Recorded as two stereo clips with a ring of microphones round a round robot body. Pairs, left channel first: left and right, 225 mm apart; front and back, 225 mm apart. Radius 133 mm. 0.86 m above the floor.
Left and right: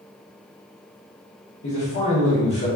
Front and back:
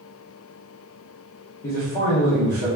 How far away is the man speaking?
About 1.4 m.